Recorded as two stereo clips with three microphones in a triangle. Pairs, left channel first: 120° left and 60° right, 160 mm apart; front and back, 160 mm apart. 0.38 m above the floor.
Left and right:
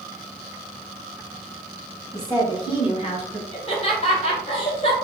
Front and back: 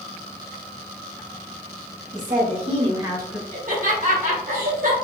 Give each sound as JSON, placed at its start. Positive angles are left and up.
{"t": 2.1, "sound": "a woman speaking", "azimuth_deg": 180, "distance_m": 2.0}
{"t": 3.5, "sound": "laughter", "azimuth_deg": 165, "distance_m": 1.9}